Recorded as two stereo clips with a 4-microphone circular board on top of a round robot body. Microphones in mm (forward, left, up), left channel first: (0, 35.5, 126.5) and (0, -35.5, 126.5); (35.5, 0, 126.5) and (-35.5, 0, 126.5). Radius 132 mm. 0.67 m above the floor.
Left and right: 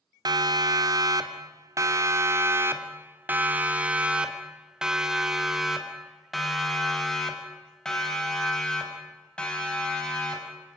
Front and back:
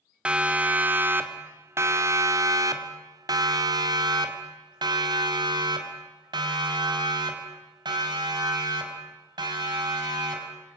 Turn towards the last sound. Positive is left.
turn(degrees=165)